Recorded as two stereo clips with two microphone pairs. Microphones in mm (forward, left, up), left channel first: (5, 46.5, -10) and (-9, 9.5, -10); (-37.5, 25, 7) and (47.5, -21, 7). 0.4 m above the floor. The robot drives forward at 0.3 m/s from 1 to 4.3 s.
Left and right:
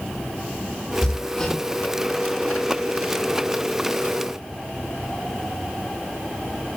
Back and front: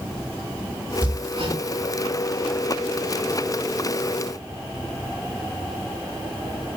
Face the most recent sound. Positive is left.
turn(degrees=0)